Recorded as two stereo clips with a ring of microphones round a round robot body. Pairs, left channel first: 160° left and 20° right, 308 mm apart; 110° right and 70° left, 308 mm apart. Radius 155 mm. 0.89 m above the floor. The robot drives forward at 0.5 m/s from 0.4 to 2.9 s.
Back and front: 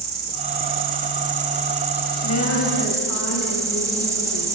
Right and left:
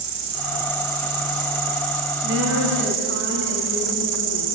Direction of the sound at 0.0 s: 35° left.